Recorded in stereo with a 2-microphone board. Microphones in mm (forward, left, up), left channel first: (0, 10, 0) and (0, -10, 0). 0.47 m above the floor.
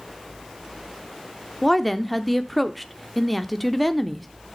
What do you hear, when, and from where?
1.6 s a woman speaking: 5° left (ahead or behind), 0.7 m